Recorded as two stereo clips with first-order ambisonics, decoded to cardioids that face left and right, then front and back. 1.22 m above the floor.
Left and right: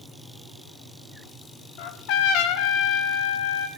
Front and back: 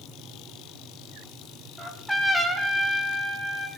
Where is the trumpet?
90° left, 1.1 m.